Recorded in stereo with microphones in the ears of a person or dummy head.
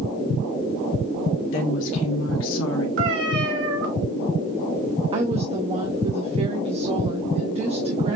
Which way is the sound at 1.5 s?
75° left (ahead or behind).